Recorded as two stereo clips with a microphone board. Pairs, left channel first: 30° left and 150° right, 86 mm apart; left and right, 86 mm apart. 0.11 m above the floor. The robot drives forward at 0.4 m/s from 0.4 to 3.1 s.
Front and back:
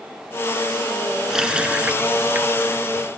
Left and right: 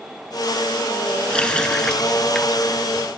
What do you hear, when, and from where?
1.3 s a running tap: 140° left, 0.9 m; by 3.1 s 170° left, 1.3 m